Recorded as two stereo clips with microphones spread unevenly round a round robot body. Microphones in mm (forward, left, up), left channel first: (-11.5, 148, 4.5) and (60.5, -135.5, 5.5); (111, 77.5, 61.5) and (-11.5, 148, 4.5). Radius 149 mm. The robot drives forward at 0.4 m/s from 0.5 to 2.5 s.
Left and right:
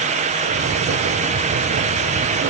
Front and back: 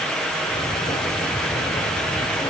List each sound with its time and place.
Only background noise.